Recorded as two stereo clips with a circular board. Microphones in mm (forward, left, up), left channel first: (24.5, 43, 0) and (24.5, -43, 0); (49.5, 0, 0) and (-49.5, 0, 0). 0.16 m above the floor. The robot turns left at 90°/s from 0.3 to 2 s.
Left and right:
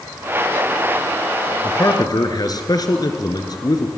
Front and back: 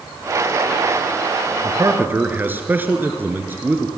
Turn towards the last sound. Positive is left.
turn(degrees=115)